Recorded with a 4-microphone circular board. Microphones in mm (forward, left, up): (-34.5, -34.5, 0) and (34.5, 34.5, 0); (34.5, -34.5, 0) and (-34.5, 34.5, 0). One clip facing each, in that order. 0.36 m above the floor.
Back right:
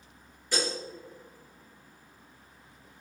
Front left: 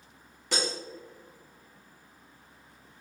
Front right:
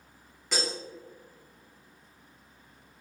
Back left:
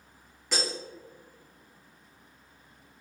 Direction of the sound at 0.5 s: 45° left.